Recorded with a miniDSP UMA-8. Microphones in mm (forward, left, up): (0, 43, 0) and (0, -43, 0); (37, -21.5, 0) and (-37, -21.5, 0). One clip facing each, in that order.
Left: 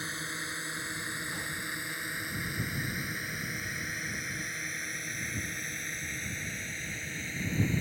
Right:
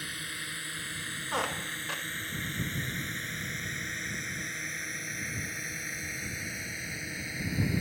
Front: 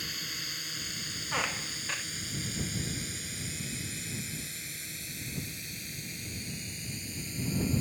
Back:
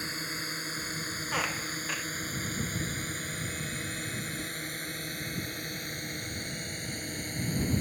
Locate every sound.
0.0 s a drone: 140° left; by 7.8 s 170° right
1.3 s a squeak: 95° right